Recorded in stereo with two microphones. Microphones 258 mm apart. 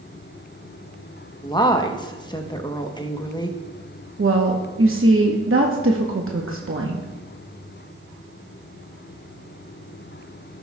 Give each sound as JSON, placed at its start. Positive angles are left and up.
{"t": 1.4, "sound": "a woman speaking", "side_deg": 15, "distance_m": 0.9}
{"t": 4.2, "sound": "a woman speaking", "side_deg": -55, "distance_m": 0.9}